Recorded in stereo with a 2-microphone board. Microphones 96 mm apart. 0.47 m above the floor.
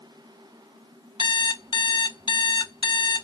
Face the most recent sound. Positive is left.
turn(degrees=60)  # may be behind; listen again after turning